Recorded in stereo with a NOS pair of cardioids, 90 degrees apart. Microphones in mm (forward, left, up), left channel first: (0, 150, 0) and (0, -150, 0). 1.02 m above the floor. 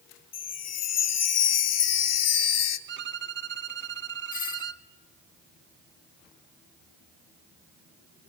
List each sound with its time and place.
0.3 s a chime: 60° left, 1.3 m
2.9 s a violin: 40° right, 0.8 m
4.3 s a doorbell: 30° left, 1.8 m